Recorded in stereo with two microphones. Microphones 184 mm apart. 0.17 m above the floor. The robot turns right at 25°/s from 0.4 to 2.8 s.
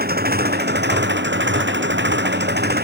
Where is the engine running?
120° right; by 2.8 s 60° right.